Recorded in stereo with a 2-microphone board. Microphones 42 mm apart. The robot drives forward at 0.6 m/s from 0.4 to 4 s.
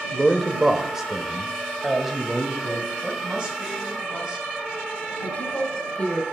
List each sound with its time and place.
0.1 s a man speaking: 15° right (ahead or behind), 0.8 m; by 2.9 s 5° right (ahead or behind), 1.9 m
3.0 s a woman speaking: 25° right (ahead or behind), 2 m; by 4.5 s 20° right (ahead or behind), 2.5 m
5.2 s a woman speaking: 30° left (ahead or behind), 1.7 m